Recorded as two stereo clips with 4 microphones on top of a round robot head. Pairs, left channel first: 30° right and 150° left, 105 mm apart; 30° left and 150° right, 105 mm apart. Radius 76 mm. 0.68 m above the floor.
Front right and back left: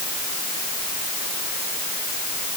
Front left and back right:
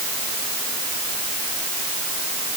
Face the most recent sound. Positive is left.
No sound to turn to.